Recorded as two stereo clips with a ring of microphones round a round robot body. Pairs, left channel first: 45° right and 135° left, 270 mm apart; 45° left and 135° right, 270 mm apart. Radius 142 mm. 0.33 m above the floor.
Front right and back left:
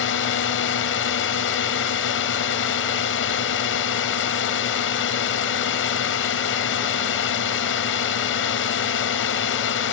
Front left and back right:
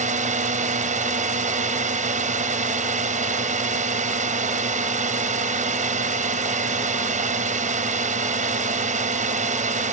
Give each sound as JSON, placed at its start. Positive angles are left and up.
{"t": 0.0, "sound": "a drone", "azimuth_deg": -75}